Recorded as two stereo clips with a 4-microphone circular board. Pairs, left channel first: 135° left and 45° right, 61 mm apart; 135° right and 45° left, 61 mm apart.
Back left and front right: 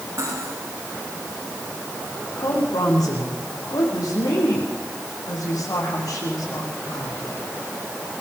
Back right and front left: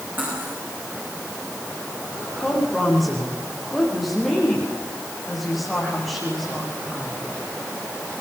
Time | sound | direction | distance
0.2 | cutlery clinking | 15° right | 10 m
2.4 | a woman speaking | 135° left | 8.5 m